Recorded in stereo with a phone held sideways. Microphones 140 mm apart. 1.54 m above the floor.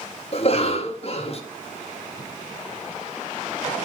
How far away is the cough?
About 1.6 m.